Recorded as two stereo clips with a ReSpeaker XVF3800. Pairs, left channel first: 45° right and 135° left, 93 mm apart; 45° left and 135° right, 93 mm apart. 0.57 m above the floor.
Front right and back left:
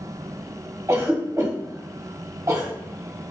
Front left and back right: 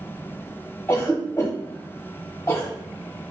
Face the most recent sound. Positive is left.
turn(degrees=95)